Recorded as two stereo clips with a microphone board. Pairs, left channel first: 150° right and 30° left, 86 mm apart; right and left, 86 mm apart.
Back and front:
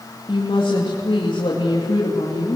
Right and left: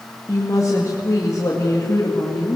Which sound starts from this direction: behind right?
A woman speaking, at 0.3 s.